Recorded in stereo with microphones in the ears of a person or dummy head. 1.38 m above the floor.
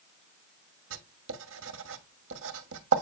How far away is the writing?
About 1.3 m.